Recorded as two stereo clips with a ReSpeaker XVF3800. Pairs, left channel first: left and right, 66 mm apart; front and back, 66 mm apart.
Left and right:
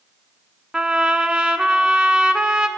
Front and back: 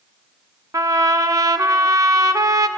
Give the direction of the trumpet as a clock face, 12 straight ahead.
6 o'clock.